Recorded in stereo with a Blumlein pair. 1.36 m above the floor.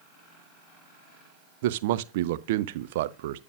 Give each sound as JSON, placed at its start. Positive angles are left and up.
{"t": 1.6, "sound": "a man speaking", "azimuth_deg": -55, "distance_m": 0.6}